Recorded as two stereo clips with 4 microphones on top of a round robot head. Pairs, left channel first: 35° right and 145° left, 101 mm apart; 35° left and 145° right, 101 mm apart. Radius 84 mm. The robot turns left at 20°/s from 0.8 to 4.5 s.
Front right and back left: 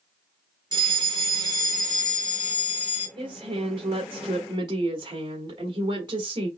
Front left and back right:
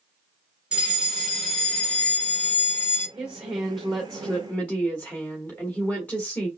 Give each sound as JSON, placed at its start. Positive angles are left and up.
{"t": 0.7, "sound": "a fire alarm", "azimuth_deg": 140, "distance_m": 2.5}
{"t": 3.2, "sound": "a woman speaking", "azimuth_deg": 135, "distance_m": 1.5}